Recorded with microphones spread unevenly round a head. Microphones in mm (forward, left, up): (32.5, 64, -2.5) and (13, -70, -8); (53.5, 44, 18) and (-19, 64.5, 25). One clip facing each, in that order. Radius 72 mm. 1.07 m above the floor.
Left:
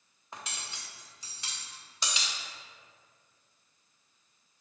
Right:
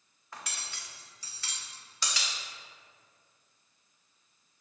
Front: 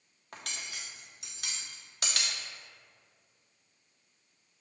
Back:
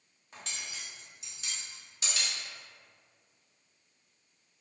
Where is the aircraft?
No aircraft in this recording.